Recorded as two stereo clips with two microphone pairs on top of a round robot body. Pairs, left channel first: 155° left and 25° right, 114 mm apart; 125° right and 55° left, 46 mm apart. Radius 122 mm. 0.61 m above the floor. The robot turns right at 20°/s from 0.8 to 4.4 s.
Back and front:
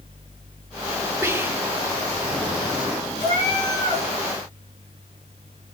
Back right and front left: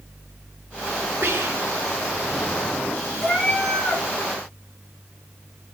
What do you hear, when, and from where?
1.2 s whispering: 45° left, 1.8 m; by 1.8 s 55° left, 1.8 m
3.2 s a cat meowing: 160° left, 4 m; by 4.0 s straight behind, 4 m